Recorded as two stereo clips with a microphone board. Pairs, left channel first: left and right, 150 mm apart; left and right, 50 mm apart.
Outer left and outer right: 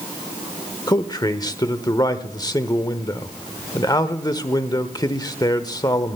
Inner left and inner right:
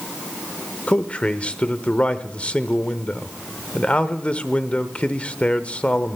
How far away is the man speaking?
About 0.8 m.